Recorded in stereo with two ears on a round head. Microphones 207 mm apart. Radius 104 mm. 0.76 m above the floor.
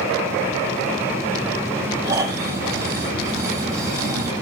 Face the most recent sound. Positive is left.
turn(degrees=-15)  # may be behind; listen again after turning